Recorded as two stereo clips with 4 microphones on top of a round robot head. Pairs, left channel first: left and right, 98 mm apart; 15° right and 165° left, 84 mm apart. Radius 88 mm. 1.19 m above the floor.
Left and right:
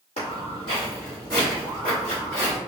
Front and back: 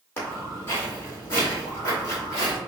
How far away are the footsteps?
About 2.0 m.